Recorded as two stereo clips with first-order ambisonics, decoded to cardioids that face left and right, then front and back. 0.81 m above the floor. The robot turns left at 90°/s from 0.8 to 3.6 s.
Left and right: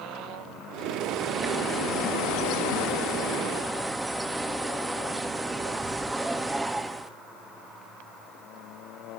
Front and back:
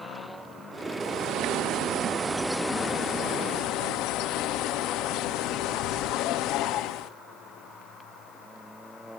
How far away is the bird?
About 1.0 m.